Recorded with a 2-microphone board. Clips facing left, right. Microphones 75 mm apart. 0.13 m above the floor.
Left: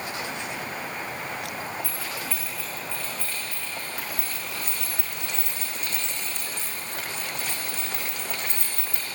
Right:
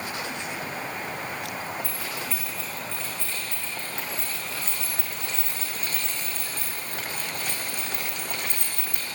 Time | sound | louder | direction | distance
1.8 | keys jangling | even | 20° right (ahead or behind) | 7.5 m